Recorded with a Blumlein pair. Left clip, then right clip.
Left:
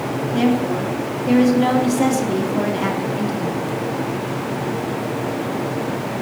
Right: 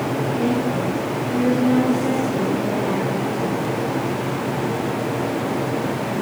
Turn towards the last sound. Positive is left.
turn(degrees=50)